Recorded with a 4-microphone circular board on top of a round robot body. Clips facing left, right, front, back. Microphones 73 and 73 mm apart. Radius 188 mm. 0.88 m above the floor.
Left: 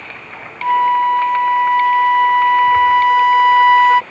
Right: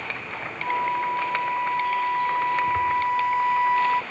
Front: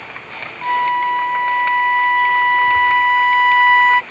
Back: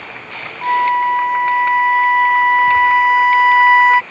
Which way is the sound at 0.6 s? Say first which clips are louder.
Left 12 dB, back 2 dB; 100° left.